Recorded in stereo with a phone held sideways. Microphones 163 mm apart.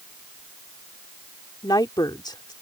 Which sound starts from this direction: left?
A woman speaking, at 1.6 s.